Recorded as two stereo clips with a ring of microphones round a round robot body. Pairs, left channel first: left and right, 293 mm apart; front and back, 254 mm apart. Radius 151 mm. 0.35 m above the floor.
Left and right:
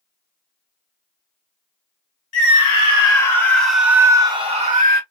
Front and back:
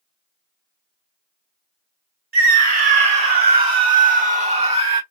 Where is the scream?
145° left, 1.7 m; by 5.0 s 120° right, 1.4 m.